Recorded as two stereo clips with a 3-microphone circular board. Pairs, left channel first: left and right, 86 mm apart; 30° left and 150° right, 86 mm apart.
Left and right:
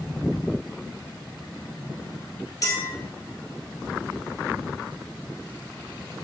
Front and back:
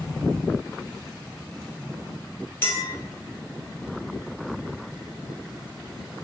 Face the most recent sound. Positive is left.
turn(degrees=75)